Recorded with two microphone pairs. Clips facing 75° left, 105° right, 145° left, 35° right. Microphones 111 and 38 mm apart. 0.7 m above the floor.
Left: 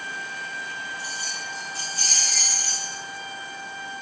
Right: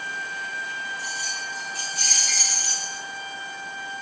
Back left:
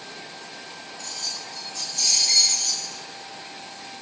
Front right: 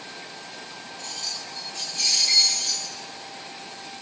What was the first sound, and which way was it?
Keys jangling, 5° left.